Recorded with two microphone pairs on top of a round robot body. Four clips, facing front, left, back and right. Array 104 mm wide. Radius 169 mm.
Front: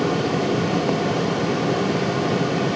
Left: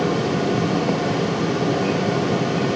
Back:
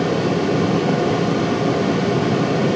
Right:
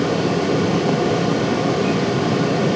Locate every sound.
Only background noise.